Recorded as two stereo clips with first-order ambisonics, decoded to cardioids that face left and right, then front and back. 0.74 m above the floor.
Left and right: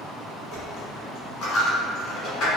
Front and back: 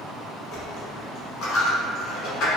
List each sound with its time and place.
0.5 s a dropped coin: 40° left, 1.2 m